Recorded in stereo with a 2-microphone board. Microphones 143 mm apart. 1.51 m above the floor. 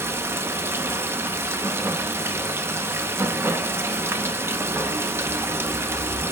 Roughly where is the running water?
Centre.